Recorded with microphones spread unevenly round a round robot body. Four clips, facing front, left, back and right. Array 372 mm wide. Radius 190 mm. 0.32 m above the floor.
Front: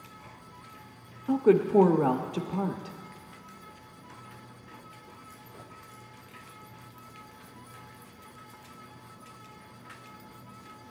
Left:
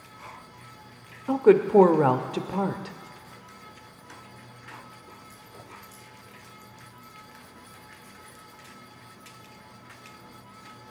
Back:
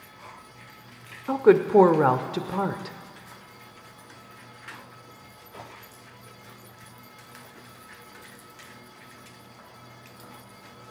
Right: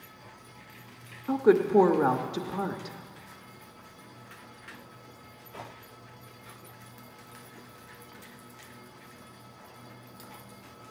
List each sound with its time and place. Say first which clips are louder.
1.3 s a woman speaking: left 4 dB, back 4 dB; 130° left, 0.9 m